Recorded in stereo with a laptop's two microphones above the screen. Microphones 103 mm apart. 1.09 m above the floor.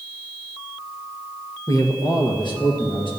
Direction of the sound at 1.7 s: 35° left (ahead or behind).